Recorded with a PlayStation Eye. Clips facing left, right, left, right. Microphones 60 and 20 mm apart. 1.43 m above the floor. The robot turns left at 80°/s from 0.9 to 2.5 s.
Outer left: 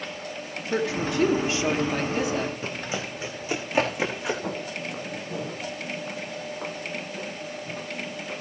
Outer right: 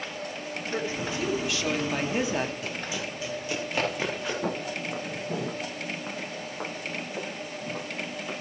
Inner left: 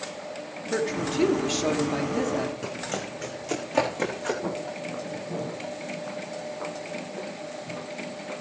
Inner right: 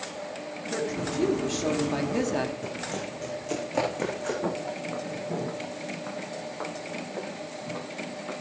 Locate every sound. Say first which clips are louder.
0.7 s a woman speaking: outer left 6 dB, inner left 4 dB; 80° left, 3 m; by 2.5 s 45° right, 3 m
2.6 s running footsteps: outer left 2 dB, inner left 1 dB; 35° left (ahead or behind), 4.5 m; by 4.3 s 10° left (ahead or behind), 6 m
4.4 s footsteps: outer right 1 dB, inner right 1 dB; 50° right (ahead or behind), 7 m; by 8.3 s 75° right (ahead or behind), 11.5 m